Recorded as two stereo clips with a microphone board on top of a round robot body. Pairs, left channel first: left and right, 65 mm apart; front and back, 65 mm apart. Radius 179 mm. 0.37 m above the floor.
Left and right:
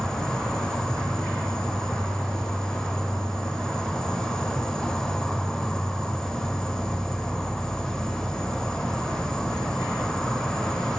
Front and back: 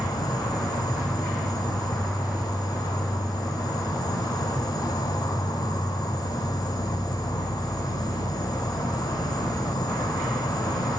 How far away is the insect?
About 1.3 m.